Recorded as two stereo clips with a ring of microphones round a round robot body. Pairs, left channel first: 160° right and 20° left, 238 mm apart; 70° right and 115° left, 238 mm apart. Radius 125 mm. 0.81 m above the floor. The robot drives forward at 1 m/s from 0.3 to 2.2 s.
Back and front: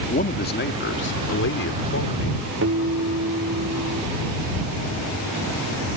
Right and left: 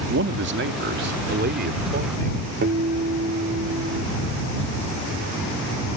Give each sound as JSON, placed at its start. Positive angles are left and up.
{"t": 0.1, "sound": "a man speaking", "azimuth_deg": 150}
{"t": 2.6, "sound": "a guitar", "azimuth_deg": 60}